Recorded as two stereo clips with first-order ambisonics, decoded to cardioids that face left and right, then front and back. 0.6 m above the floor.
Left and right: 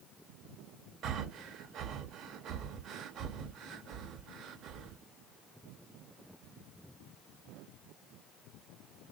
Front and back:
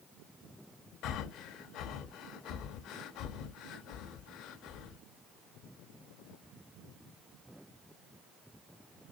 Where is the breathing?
40° right, 0.6 m.